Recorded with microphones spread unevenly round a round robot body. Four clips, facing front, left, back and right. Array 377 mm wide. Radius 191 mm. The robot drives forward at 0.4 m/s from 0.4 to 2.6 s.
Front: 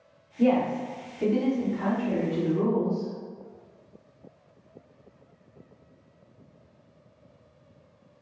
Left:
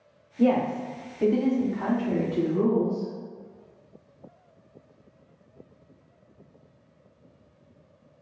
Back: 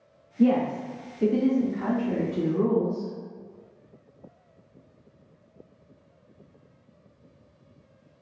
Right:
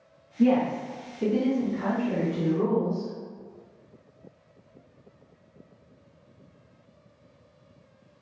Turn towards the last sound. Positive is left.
turn(degrees=120)